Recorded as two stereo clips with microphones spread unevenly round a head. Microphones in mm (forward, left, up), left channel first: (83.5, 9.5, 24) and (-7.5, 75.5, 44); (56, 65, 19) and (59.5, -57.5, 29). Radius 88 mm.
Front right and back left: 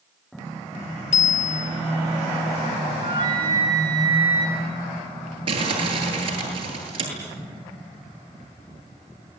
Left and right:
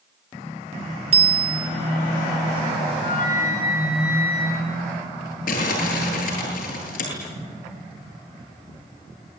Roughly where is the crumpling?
Left.